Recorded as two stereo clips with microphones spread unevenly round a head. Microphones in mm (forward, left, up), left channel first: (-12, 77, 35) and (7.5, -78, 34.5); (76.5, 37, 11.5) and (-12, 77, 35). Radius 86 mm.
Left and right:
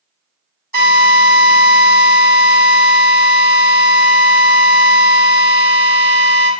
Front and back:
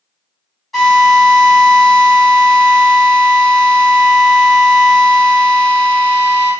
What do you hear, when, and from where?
0.7 s a drill: 105° right, 1.3 m